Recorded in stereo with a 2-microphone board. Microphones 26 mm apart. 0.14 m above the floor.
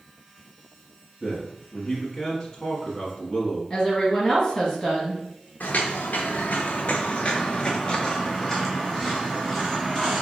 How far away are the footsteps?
About 1.1 m.